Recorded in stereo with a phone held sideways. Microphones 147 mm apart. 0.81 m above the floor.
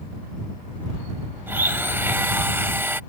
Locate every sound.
1.5 s a blender: 15° right (ahead or behind)